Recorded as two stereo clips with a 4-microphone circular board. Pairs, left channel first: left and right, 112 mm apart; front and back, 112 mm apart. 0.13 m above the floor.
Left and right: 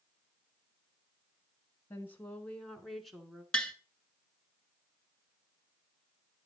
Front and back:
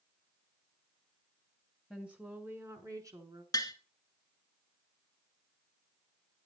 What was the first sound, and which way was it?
A woman speaking, 105° left.